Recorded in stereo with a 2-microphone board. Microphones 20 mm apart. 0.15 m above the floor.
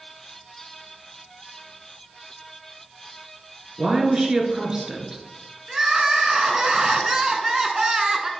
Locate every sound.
3.8 s a woman speaking: 30° right (ahead or behind), 1.7 m
5.7 s crying: 30° right (ahead or behind), 1.0 m